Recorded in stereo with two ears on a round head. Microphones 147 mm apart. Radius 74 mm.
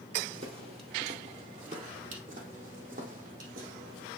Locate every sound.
0.3 s footsteps: 35° right (ahead or behind), 1.8 m; by 4.1 s 55° right (ahead or behind), 3.5 m